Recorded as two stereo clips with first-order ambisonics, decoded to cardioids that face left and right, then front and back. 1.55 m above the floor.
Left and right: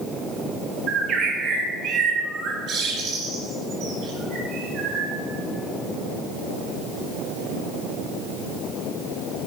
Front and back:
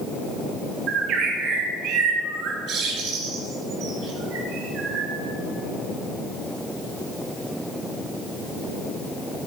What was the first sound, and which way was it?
A bird, 140° right.